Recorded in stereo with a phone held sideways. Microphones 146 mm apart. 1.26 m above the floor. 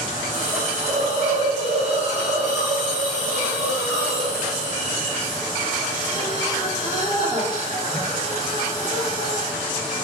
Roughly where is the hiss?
Right.